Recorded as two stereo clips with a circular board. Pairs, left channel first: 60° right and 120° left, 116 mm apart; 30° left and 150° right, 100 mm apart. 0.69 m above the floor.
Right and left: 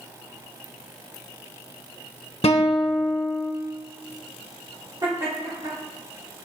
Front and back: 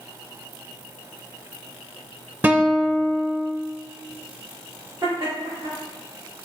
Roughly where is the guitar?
Right.